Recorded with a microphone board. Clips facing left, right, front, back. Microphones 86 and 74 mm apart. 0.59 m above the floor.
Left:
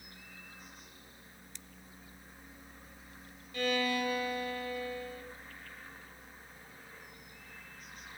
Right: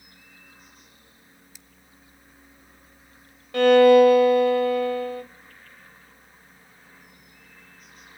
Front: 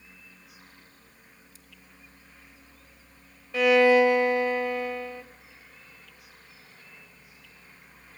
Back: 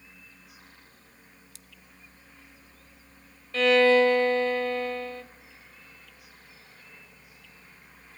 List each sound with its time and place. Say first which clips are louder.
1.6 s scissors: even, back 1 dB; 175° right, 0.6 m
3.5 s a violin: right 20 dB, front 1 dB; 75° right, 1.3 m